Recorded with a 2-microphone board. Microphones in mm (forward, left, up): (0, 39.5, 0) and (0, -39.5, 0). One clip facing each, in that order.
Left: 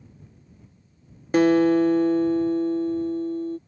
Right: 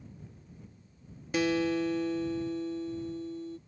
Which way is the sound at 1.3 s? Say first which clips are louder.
Left 11 dB; 45° left (ahead or behind).